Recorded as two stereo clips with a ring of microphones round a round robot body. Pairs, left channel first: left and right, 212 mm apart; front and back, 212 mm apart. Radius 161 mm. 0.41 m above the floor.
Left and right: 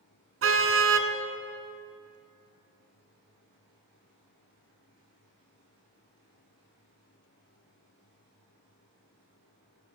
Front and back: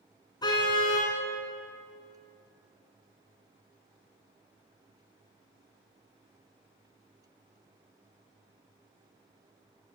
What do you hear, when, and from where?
0.4 s a car horn: 75° right, 2 m